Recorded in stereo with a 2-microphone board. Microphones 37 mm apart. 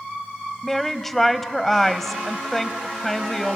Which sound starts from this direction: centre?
A woman speaking, at 0.6 s.